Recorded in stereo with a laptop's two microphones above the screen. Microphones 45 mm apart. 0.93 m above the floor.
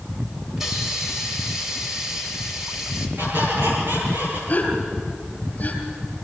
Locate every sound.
0.6 s a hiss: 10° right (ahead or behind), 2 m
3.2 s a squeak: 45° right (ahead or behind), 8 m
4.5 s a gasp: 35° left (ahead or behind), 3.5 m